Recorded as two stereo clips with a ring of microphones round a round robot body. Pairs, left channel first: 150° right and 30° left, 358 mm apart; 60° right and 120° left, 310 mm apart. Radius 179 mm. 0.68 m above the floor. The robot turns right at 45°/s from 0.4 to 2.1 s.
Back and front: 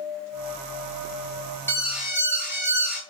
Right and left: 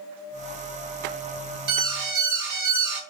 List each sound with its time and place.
1.7 s an alarm: 125° left, 3.5 m; by 3.0 s 145° left, 3.5 m